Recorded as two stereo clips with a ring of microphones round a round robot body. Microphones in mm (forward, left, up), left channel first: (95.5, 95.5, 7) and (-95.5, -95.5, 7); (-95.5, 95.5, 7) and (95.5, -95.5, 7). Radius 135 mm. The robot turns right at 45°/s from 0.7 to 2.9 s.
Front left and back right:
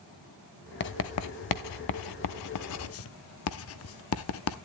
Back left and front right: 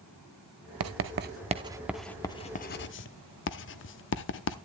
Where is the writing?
10° right, 0.7 m; by 4.6 s 85° left, 0.7 m.